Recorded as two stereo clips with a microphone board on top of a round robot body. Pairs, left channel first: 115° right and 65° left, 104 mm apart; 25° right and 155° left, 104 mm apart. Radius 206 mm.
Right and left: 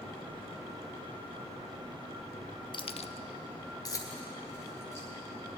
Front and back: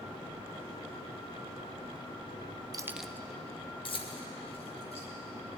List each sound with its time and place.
2.7 s keys jangling: 150° right, 0.6 m; by 5.1 s 45° right, 3 m